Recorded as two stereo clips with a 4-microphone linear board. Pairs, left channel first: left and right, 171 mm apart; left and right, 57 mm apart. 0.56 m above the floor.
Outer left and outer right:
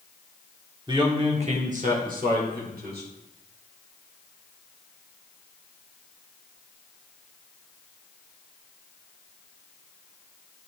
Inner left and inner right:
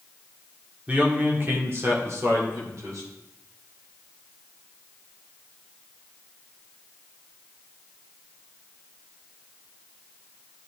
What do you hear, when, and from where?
0.9 s a man speaking: 25° right (ahead or behind), 1.2 m; by 3.1 s 65° right (ahead or behind), 1.8 m